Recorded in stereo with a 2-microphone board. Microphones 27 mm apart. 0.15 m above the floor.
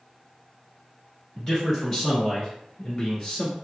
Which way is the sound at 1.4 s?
5° left (ahead or behind).